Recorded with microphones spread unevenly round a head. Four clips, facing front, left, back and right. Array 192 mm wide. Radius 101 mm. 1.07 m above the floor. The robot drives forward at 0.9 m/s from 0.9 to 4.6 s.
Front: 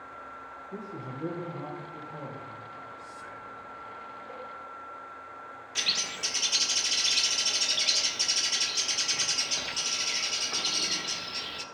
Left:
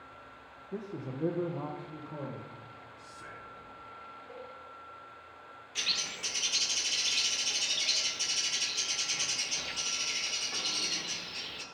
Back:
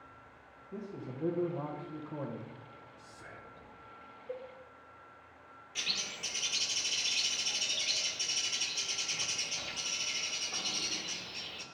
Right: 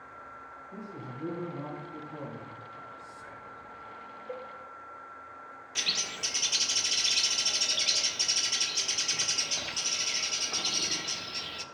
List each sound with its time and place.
0.7 s a man speaking: 65° left, 1.0 m; by 2.5 s 145° left, 1.4 m
3.0 s whispering: 125° left, 4.5 m; by 3.7 s 135° left, 4.5 m
4.3 s a cowbell: 100° right, 0.7 m; by 4.5 s 115° right, 0.8 m
5.8 s a bird: 70° right, 0.8 m